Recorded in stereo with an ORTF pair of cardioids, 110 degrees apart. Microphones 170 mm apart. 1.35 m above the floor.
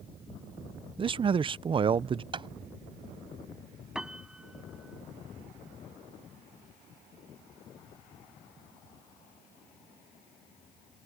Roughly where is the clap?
Ahead right.